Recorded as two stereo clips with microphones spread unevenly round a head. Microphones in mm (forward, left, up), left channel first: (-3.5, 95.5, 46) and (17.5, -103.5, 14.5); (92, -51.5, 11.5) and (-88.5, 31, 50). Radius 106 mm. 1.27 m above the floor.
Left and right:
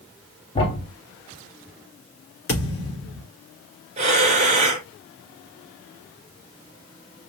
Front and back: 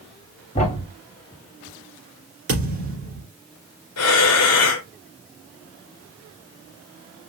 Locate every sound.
0.6 s a thud: 35° left, 1.6 m
2.5 s a thud: 120° left, 3.5 m
4.0 s breathing: 25° right, 1.3 m